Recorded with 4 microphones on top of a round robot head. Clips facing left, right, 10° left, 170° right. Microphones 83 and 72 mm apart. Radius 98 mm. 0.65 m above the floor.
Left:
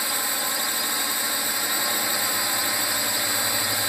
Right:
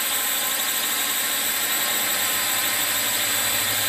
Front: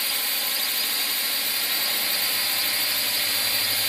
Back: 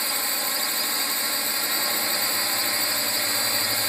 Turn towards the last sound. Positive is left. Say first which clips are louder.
# left 1 dB, back 2 dB
turn(degrees=155)